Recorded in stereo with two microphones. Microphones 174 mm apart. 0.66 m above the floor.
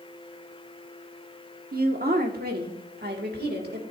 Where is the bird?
I don't hear a bird.